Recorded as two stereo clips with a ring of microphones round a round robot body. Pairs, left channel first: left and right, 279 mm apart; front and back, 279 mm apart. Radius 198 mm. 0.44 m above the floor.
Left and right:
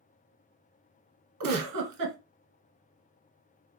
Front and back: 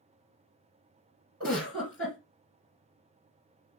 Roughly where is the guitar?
I don't hear a guitar.